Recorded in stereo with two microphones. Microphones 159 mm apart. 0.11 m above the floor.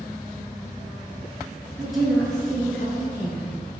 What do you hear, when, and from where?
1.8 s a woman speaking: 5° right (ahead or behind), 1.1 m; by 3.6 s 15° left (ahead or behind), 2 m